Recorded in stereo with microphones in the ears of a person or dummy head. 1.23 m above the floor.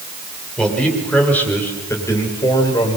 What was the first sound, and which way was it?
A man speaking, centre (ahead or behind).